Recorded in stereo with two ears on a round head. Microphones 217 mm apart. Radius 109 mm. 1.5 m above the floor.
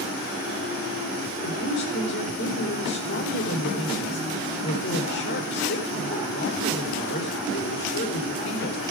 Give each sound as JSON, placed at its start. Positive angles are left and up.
{"t": 1.4, "sound": "a woman speaking", "side_deg": 45, "distance_m": 4.5}